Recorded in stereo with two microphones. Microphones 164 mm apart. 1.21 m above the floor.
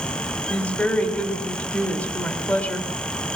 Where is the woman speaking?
10° left (ahead or behind), 4 m.